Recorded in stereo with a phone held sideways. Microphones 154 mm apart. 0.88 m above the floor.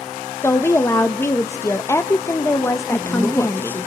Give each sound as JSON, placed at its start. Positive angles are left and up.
{"t": 0.4, "sound": "a woman speaking", "side_deg": 15, "distance_m": 0.6}
{"t": 2.9, "sound": "a woman speaking", "side_deg": 15, "distance_m": 1.0}